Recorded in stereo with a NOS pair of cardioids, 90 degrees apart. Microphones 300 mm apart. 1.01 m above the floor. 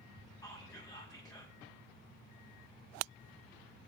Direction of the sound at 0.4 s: 10° left.